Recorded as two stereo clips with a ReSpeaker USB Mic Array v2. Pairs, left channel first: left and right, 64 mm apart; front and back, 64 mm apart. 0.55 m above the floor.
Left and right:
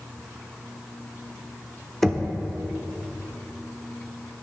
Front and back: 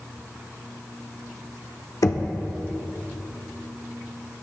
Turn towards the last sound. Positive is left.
turn(degrees=5)